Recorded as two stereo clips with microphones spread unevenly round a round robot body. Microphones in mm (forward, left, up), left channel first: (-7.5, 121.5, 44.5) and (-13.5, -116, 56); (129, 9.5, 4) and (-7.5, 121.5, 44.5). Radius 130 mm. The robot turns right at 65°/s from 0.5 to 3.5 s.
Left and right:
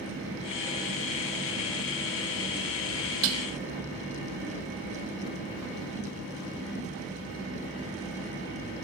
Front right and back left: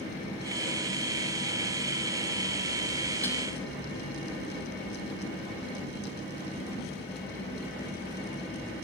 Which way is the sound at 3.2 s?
125° right.